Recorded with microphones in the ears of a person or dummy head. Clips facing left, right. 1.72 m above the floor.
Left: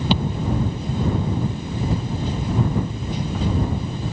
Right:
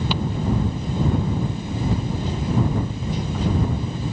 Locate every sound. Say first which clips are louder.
0.1 s a thud: left 6 dB; 40° left (ahead or behind)